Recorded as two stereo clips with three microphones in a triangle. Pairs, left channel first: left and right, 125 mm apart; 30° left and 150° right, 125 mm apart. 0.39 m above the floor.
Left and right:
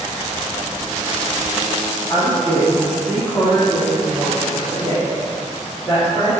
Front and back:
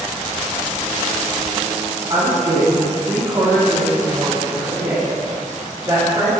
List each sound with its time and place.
2.1 s a woman speaking: 165° left, 2.5 m; by 6.3 s 155° left, 5 m